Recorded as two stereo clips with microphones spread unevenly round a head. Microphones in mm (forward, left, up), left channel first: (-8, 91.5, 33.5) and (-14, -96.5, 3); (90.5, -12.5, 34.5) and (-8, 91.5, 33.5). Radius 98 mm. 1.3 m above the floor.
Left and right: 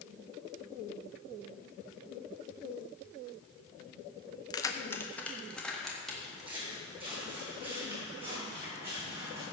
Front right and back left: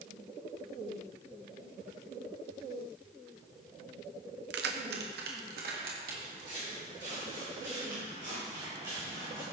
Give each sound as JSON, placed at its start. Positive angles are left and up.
{"t": 4.5, "sound": "keys jangling", "azimuth_deg": 155, "distance_m": 0.7}
{"t": 6.2, "sound": "footsteps", "azimuth_deg": -160, "distance_m": 4.5}